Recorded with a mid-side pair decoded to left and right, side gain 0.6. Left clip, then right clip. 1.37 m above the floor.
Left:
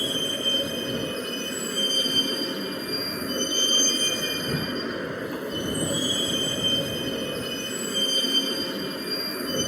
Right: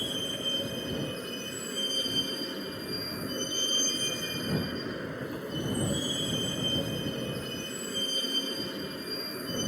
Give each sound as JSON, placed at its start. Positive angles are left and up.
{"t": 0.0, "sound": "a vehicle", "azimuth_deg": 35}